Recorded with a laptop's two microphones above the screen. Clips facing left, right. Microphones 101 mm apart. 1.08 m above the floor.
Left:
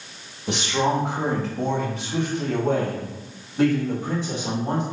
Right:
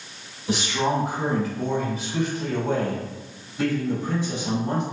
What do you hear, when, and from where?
0.5 s a man speaking: 70° left (ahead or behind), 1.5 m; by 4.8 s 40° left (ahead or behind), 2.5 m